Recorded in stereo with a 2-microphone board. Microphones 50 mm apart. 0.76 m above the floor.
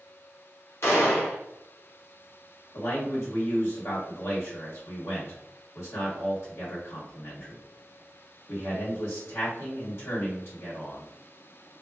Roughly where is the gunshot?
Left.